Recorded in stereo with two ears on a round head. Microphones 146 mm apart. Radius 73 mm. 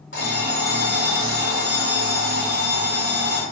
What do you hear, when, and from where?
0.1 s an alarm clock: 75° left (ahead or behind), 1.5 m